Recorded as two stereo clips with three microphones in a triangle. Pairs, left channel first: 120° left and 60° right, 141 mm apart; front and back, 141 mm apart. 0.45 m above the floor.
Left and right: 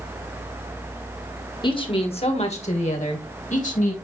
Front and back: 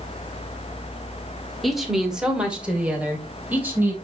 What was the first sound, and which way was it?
A woman speaking, 90° left.